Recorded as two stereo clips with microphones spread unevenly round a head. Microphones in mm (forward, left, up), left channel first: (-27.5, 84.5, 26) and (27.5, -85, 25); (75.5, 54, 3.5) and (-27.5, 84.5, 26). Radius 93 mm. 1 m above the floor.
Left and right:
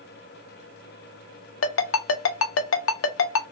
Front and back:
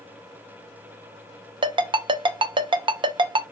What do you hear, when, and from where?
1.6 s a ringtone: 125° left, 0.6 m